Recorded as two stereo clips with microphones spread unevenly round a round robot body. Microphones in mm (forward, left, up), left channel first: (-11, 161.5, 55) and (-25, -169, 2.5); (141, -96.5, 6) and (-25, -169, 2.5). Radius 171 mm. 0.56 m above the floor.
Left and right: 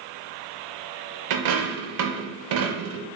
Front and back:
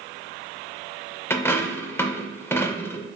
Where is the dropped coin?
55° right, 0.5 m.